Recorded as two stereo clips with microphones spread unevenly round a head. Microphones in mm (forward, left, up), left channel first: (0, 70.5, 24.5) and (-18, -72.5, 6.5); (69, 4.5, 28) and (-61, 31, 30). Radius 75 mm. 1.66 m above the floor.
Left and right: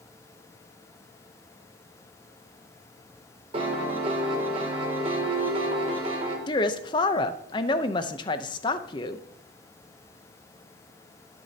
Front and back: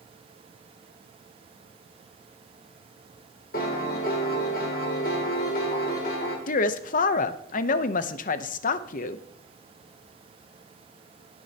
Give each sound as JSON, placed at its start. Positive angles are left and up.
{"t": 3.5, "sound": "a piano", "azimuth_deg": -40, "distance_m": 2.5}
{"t": 6.5, "sound": "a woman speaking", "azimuth_deg": 20, "distance_m": 0.8}